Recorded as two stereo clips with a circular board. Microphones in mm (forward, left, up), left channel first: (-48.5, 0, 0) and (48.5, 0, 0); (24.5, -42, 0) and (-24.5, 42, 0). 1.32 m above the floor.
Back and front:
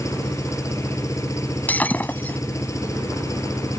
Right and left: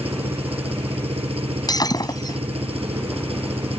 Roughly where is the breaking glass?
Right.